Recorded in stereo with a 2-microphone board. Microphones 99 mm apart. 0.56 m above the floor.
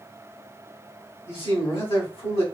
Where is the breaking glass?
I don't hear breaking glass.